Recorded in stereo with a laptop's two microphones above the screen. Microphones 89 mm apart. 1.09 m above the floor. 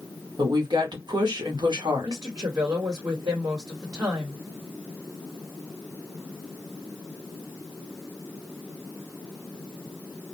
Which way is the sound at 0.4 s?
55° right (ahead or behind).